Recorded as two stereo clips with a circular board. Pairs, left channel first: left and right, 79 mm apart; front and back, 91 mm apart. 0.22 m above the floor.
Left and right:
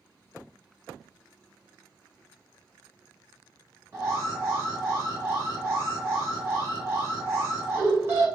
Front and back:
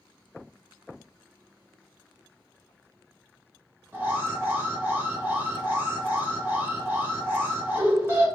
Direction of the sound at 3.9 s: 125° right.